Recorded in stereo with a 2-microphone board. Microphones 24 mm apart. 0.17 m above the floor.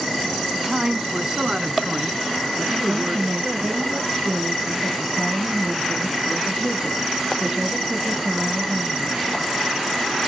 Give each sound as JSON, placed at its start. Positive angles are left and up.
{"t": 0.6, "sound": "a man speaking", "side_deg": -15, "distance_m": 1.1}
{"t": 2.8, "sound": "a woman speaking", "side_deg": -25, "distance_m": 4.5}